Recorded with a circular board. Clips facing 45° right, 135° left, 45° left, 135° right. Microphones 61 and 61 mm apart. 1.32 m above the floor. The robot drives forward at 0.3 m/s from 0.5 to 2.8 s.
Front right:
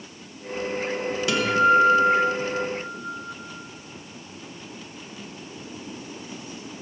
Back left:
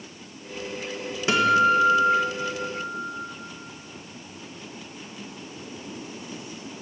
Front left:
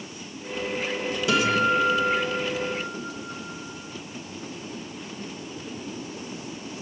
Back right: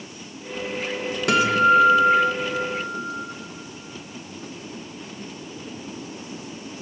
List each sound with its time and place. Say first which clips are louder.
1.3 s a guitar: even, back right 5 dB; 165° right, 1.0 m; by 3.3 s 170° right, 1.4 m